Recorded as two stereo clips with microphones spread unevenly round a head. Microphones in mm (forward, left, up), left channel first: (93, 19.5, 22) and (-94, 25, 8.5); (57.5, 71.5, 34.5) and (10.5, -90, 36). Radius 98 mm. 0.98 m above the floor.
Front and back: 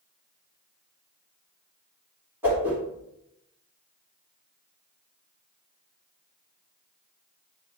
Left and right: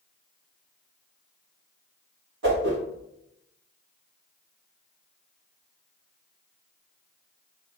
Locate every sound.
2.4 s a whoosh: 100° right, 3.5 m